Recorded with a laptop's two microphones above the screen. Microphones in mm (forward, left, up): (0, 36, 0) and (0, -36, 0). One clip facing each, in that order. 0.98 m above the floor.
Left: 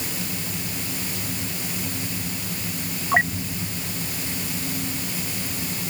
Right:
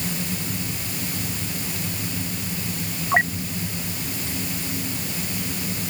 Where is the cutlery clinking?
No cutlery clinking in this recording.